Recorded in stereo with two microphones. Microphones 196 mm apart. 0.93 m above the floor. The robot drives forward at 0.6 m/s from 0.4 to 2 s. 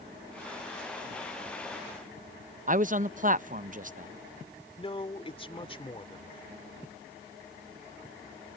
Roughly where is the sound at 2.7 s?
Right.